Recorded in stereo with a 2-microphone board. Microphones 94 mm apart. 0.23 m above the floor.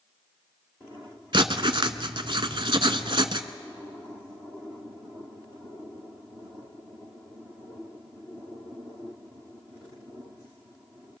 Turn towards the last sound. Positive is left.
turn(degrees=-60)  # may be behind; listen again after turning